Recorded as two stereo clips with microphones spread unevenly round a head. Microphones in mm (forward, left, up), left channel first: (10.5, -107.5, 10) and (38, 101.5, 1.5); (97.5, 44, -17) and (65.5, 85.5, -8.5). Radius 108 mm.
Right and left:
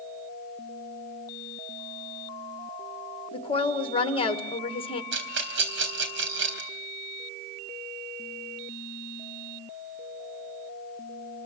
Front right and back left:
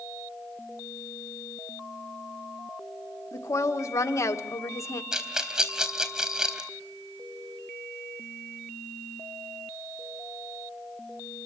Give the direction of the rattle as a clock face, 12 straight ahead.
10 o'clock.